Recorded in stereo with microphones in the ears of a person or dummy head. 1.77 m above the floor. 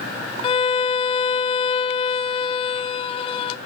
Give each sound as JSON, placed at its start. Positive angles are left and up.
{"t": 0.4, "sound": "a violin", "side_deg": 35, "distance_m": 0.6}